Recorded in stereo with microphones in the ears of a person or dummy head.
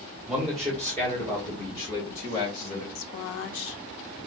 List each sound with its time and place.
0.3 s a man speaking: 5° right (ahead or behind), 1.9 m; by 2.9 s 45° left (ahead or behind), 3 m
3.0 s a woman speaking: 70° left (ahead or behind), 0.8 m